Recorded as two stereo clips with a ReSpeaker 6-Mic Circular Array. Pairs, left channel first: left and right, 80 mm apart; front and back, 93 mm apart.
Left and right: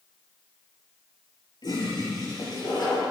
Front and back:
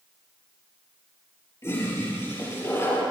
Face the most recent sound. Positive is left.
turn(degrees=60)